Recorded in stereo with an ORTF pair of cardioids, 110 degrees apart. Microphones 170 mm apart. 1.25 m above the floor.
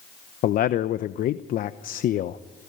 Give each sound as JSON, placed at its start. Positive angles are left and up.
{"t": 0.4, "sound": "a man speaking", "azimuth_deg": 55, "distance_m": 0.9}